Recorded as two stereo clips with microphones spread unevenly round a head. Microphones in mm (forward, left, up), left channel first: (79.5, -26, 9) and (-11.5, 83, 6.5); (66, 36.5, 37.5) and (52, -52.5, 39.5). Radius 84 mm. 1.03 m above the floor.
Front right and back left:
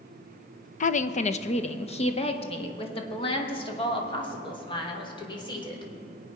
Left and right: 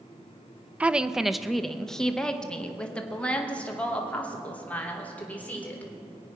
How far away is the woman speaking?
About 0.7 m.